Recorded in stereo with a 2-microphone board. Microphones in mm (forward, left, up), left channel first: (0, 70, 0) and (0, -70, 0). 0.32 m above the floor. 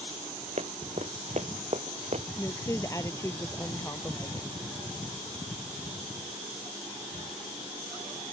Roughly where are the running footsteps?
Right.